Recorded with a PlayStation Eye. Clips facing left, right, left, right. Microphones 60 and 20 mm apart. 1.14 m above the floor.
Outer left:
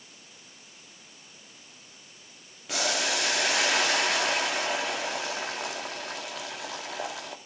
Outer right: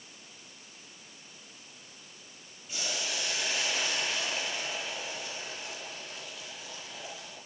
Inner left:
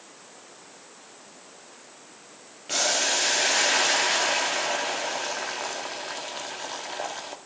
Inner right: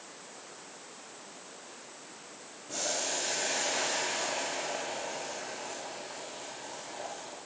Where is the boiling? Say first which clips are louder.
Outer left 8 dB, inner left 10 dB; 85° left, 2 m.